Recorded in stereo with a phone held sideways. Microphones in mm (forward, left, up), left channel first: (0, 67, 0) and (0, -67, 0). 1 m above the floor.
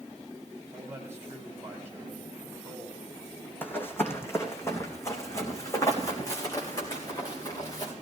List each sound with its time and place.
0.7 s a man speaking: 20° right (ahead or behind), 7 m
3.6 s running footsteps: 15° left (ahead or behind), 2.5 m; by 7.9 s 30° left (ahead or behind), 4.5 m